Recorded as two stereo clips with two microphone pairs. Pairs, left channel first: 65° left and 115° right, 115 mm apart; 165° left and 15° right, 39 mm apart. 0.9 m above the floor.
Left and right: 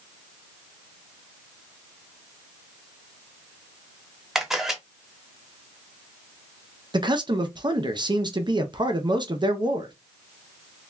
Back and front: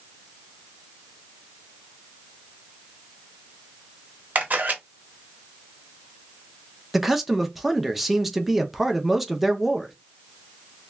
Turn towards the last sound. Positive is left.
turn(degrees=-95)